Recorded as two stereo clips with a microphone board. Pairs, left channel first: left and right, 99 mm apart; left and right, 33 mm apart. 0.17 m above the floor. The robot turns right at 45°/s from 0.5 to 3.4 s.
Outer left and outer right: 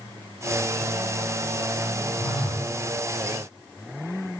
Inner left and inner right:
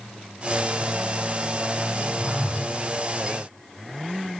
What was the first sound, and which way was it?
A phone buzzing, 20° left (ahead or behind).